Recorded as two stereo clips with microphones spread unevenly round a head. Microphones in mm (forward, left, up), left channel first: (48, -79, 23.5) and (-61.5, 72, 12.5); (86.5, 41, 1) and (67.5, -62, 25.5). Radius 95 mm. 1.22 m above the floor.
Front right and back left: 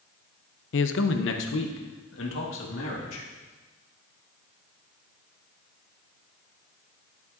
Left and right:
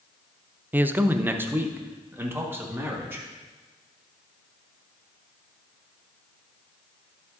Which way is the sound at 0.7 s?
25° right.